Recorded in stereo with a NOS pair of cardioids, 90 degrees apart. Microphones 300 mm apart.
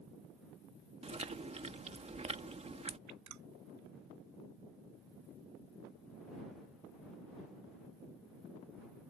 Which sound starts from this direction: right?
Dripping, at 3.1 s.